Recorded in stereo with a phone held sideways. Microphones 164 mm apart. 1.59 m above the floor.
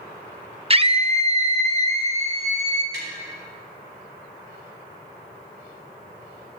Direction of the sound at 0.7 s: 35° right (ahead or behind).